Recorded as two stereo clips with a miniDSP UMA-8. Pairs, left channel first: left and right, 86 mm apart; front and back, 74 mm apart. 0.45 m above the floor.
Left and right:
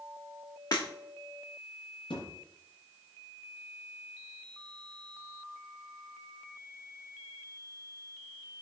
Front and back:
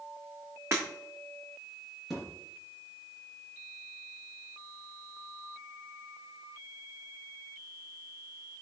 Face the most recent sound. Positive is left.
turn(degrees=90)